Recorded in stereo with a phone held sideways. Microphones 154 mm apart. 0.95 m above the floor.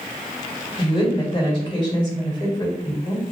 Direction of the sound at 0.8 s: 30° left (ahead or behind).